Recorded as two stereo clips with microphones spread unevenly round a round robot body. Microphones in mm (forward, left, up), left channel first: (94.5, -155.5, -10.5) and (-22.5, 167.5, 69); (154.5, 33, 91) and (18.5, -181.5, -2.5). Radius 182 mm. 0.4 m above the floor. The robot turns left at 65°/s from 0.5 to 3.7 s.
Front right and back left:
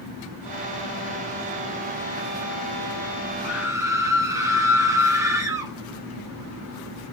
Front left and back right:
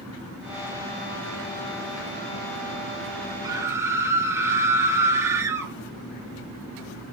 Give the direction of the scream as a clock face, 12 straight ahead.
5 o'clock.